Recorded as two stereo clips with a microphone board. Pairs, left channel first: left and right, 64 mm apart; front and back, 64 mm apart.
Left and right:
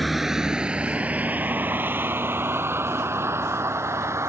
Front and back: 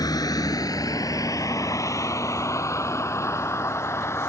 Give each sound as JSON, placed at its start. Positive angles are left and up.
{"t": 0.0, "sound": "a vehicle", "azimuth_deg": 0}